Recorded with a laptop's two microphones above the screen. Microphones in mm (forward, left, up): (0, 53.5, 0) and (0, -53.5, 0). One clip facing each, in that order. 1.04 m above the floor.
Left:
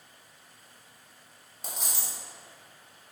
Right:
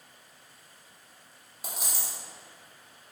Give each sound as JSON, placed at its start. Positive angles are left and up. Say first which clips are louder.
{"t": 1.6, "sound": "a dropped coin", "louder": "even", "side_deg": -10, "distance_m": 0.6}